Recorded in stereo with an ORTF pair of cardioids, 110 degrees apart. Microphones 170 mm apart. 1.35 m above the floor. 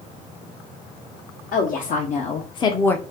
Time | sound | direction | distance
1.5 | a woman speaking | 65° left | 1.0 m